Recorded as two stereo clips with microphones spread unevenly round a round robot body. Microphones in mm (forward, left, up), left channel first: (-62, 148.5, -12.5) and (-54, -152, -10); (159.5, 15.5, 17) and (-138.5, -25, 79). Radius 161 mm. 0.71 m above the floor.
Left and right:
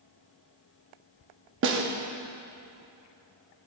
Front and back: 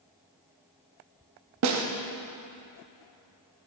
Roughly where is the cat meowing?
I don't hear a cat meowing.